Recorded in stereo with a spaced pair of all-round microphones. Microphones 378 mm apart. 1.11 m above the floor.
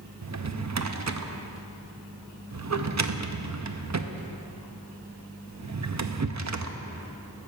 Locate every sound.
0.2 s a drawer: 45° right (ahead or behind), 0.5 m